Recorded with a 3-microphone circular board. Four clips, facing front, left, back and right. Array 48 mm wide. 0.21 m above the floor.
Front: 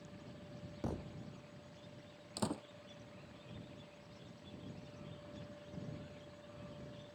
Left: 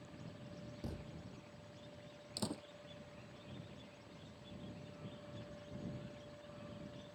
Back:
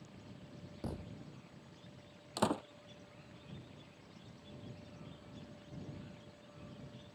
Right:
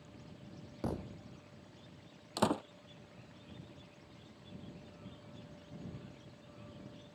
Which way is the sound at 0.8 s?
75° right.